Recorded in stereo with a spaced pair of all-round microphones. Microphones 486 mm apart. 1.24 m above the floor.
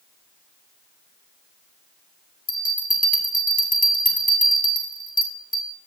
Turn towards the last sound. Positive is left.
turn(degrees=15)  # may be behind; listen again after turning